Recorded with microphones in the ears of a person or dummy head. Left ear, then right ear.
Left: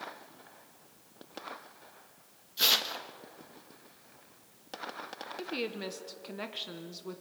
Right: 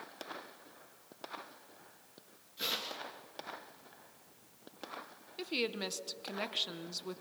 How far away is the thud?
I don't hear a thud.